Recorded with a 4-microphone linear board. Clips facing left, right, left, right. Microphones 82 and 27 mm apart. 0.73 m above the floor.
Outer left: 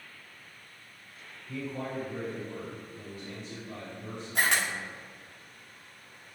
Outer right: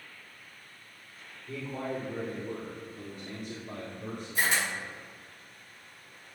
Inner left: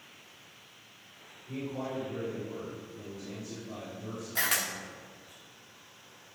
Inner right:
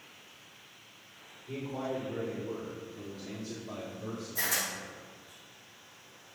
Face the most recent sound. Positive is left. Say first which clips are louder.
# outer left 1 dB, inner left 3 dB
turn(degrees=65)  # may be behind; listen again after turning